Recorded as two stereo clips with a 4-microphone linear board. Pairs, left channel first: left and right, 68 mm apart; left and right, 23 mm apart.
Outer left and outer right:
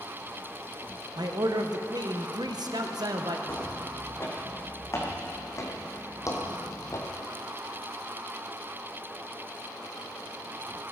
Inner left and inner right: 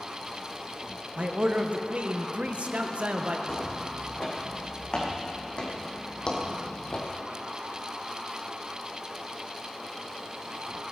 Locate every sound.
1.2 s a man speaking: 75° right (ahead or behind), 1.2 m
3.5 s footsteps: 40° left (ahead or behind), 5 m; by 7.1 s 45° left (ahead or behind), 2 m